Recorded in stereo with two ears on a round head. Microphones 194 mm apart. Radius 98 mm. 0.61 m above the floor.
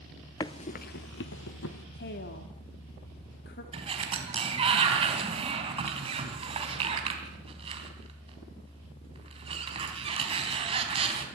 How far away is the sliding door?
About 3 m.